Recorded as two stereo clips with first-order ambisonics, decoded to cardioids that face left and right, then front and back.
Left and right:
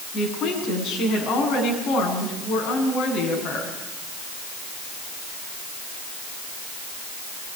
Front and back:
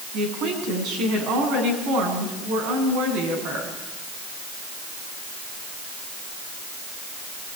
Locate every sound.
0.1 s a woman speaking: 145° left, 7.5 m